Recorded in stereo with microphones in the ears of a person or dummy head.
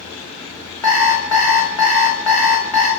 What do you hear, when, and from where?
0.8 s an alarm clock: 5° left (ahead or behind), 1.2 m